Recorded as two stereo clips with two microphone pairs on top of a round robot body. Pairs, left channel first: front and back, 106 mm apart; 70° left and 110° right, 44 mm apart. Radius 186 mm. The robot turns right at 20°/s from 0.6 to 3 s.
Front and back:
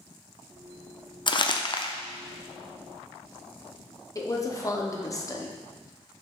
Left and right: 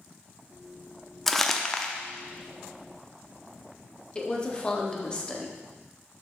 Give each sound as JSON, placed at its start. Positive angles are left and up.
{"t": 1.3, "sound": "crumpling", "azimuth_deg": 0, "distance_m": 0.8}
{"t": 4.2, "sound": "a woman speaking", "azimuth_deg": 35, "distance_m": 1.3}